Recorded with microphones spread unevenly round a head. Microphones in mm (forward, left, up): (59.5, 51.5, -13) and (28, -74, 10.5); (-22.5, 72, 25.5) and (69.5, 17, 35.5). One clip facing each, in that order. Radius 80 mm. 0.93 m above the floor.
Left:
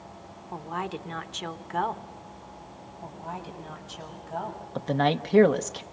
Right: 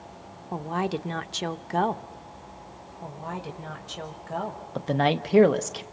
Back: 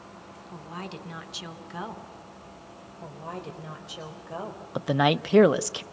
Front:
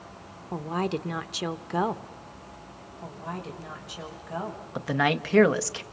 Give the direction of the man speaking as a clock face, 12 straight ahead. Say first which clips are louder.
Right 1 dB, back 3 dB; 7 o'clock.